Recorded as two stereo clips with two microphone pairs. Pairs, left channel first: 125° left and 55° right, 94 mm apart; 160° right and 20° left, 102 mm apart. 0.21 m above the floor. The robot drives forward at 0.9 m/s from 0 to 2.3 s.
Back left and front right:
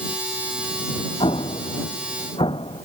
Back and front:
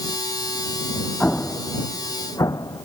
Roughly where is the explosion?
Behind left.